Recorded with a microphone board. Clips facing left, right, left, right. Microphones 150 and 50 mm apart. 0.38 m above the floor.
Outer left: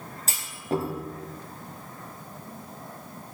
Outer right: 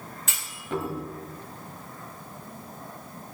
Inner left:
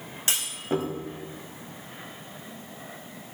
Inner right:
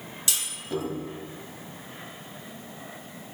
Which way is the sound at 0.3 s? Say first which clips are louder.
Outer left 4 dB, inner left 4 dB; 35° left (ahead or behind).